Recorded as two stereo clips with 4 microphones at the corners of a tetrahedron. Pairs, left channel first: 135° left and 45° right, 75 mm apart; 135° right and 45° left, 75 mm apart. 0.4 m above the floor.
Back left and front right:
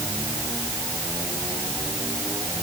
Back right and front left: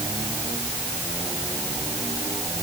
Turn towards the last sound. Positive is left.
No sound to turn to.